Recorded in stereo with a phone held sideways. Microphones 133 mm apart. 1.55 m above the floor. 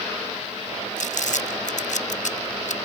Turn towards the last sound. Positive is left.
turn(degrees=75)  # may be behind; listen again after turning